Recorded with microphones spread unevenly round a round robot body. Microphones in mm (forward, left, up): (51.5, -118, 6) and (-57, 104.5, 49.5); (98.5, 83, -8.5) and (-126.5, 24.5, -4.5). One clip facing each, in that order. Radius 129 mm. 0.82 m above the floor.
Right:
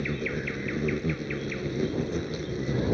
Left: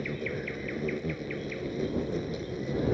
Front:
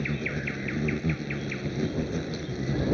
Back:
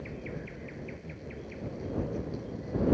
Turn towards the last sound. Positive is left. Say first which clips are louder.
# right 3 dB, front 8 dB
turn(degrees=5)